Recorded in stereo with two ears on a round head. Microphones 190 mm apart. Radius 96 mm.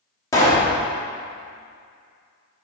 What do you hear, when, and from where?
0.3 s a pop: 15° left (ahead or behind), 1.3 m